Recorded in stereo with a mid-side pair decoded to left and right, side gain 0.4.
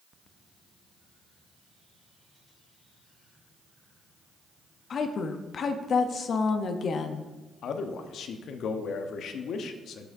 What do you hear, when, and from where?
4.9 s a woman speaking: 55° left, 0.6 m
7.6 s a man speaking: 70° left, 0.8 m